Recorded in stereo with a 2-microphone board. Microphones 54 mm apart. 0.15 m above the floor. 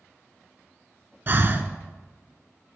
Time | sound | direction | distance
1.3 | breathing | 45° right (ahead or behind) | 0.5 m